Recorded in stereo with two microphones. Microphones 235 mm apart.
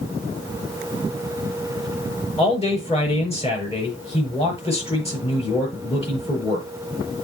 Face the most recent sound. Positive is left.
turn(degrees=25)  # may be behind; listen again after turning